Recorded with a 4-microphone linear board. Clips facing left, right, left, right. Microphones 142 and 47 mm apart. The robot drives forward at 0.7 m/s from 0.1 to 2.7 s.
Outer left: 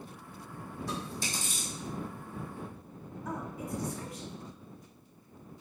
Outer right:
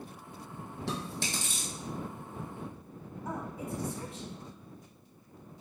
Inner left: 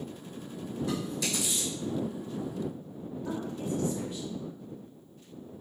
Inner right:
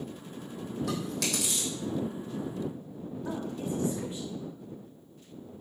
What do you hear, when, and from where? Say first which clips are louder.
0.9 s chewing: outer right 2 dB, even; 85° right, 1.3 m; by 1.7 s 60° right (ahead or behind), 1.5 m
3.2 s a woman speaking: even, even; 25° right (ahead or behind), 1.2 m